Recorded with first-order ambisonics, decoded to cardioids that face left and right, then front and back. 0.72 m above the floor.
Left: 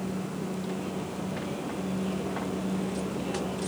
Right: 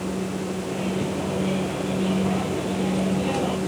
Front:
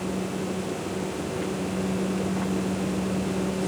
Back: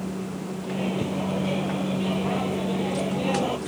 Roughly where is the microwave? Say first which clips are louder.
Right 7 dB, back 1 dB; behind right.